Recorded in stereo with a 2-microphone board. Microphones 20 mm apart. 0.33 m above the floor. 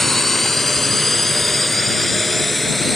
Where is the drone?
10° left (ahead or behind); by 3.0 s 5° left (ahead or behind).